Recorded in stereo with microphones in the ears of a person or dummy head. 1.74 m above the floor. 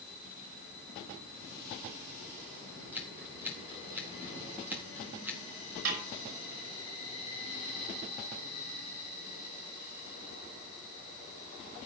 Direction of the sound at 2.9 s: 15° right (ahead or behind).